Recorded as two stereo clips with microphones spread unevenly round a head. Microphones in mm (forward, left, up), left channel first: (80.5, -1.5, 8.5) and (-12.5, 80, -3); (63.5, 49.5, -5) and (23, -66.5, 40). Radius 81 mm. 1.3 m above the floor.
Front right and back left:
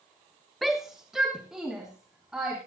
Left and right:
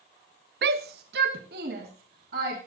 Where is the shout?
130° right, 0.7 m; by 2.6 s 135° right, 3.5 m.